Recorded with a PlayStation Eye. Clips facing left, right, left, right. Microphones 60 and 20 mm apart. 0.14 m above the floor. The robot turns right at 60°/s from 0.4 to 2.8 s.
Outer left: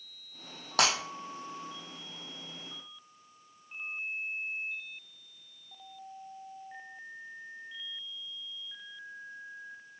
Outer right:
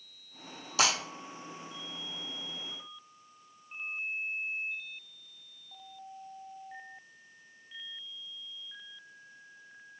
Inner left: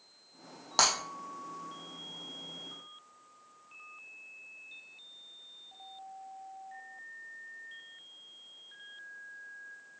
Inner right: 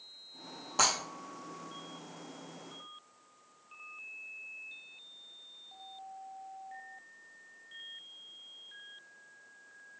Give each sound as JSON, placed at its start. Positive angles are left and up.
{"t": 0.8, "sound": "breaking glass", "side_deg": 55, "distance_m": 2.5}